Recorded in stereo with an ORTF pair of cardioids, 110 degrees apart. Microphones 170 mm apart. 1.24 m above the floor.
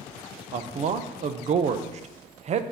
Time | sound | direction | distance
0.5 | a man speaking | 45° right | 0.6 m